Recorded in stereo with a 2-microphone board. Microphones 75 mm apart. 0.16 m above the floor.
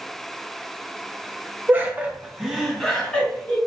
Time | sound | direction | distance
1.7 | laughter | 30° right (ahead or behind) | 1.1 m